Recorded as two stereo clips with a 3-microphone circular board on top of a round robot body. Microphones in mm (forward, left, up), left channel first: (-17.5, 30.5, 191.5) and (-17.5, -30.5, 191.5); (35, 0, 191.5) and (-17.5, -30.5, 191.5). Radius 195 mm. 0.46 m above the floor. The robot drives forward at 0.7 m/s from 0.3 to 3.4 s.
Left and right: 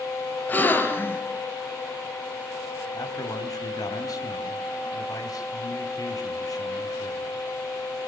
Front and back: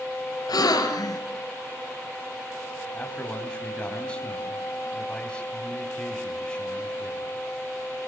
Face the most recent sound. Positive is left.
turn(degrees=105)